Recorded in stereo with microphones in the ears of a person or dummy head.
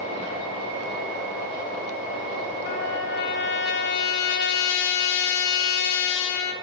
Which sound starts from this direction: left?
A trumpet, at 2.6 s.